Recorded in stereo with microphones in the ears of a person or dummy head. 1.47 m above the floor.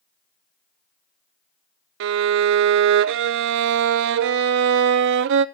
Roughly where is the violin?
Right.